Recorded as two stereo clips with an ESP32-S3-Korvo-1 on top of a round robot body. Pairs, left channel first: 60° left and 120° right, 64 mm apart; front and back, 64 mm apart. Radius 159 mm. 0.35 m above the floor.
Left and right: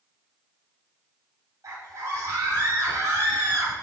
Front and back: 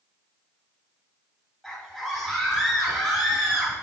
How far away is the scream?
About 4 m.